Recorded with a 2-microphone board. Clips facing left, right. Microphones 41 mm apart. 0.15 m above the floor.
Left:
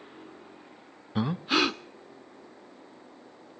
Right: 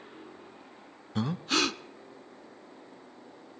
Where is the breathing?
15° left (ahead or behind), 0.5 m.